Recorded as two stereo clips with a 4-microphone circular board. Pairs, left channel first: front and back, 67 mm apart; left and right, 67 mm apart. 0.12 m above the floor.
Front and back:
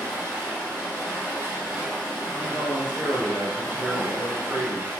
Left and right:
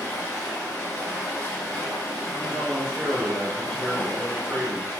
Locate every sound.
0.0 s running water: 140° left, 1.3 m
2.4 s a man speaking: 145° right, 1.1 m